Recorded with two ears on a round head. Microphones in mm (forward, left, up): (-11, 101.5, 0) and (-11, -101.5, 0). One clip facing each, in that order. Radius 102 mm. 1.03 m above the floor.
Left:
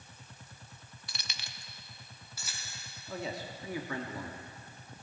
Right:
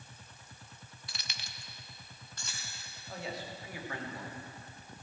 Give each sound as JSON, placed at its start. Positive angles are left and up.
{"t": 1.1, "sound": "keys jangling", "side_deg": 85, "distance_m": 0.6}
{"t": 3.1, "sound": "a man speaking", "side_deg": 80, "distance_m": 1.8}